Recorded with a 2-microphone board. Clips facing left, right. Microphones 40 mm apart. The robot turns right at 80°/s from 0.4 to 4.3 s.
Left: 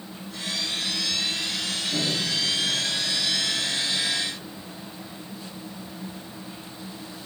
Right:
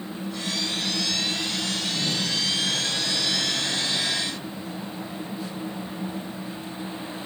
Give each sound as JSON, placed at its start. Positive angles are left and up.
{"t": 1.9, "sound": "a microwave", "azimuth_deg": 85, "distance_m": 3.5}